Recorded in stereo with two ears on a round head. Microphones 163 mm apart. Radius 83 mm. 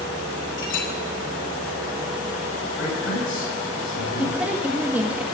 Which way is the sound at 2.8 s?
80° left.